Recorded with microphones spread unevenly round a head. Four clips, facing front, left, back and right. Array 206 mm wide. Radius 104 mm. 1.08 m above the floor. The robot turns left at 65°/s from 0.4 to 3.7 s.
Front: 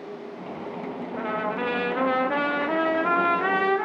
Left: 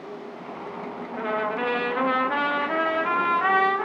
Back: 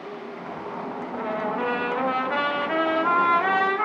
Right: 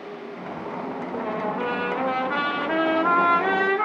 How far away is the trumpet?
About 1.5 m.